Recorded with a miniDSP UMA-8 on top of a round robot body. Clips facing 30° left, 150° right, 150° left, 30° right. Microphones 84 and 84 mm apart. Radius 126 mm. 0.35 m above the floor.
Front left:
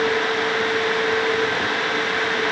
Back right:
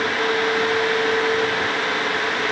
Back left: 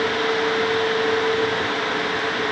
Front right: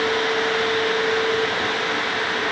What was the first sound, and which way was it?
Only background noise.